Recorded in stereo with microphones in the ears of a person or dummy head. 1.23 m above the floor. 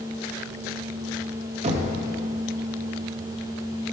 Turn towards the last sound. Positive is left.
turn(degrees=-40)  # may be behind; listen again after turning